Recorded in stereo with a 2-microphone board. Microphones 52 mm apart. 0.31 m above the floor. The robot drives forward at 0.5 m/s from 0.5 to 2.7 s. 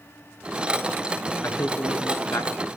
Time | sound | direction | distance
1.4 | a man speaking | 70° left (ahead or behind) | 3 m